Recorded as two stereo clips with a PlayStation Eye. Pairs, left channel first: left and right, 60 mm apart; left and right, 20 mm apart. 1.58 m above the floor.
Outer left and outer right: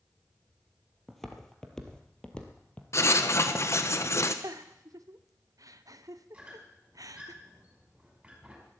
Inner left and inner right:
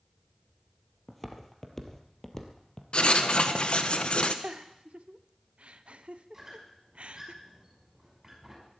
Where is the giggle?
70° right (ahead or behind), 0.7 m.